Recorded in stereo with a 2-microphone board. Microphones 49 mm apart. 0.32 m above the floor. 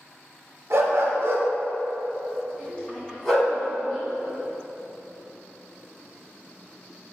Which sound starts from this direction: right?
A dog barking, at 0.7 s.